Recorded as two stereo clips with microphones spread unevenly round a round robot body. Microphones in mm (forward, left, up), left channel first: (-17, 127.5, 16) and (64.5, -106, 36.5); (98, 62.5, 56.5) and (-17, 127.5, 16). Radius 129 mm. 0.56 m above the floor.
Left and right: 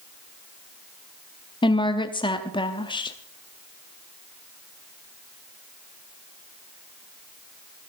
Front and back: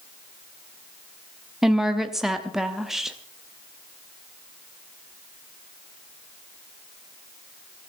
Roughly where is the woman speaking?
Behind left.